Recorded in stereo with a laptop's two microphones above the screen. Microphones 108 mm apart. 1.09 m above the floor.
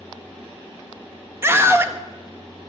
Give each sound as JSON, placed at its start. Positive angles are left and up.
{"t": 1.4, "sound": "a scream", "side_deg": -25, "distance_m": 1.3}